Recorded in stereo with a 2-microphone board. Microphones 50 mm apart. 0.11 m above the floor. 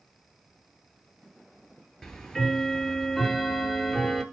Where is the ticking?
10° left (ahead or behind), 0.8 m.